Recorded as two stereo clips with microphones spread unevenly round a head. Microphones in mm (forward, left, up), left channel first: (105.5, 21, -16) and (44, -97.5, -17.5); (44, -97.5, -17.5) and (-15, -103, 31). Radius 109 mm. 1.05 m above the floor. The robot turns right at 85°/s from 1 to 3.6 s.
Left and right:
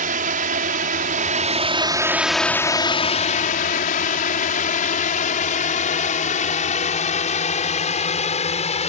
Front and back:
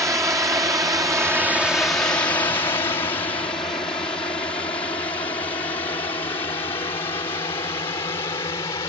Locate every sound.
0.0 s a drone: 120° right; by 8.9 s 30° left